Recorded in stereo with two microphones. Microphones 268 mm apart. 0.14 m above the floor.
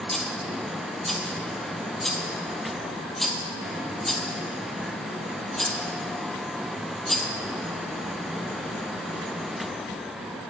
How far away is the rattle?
About 1.2 m.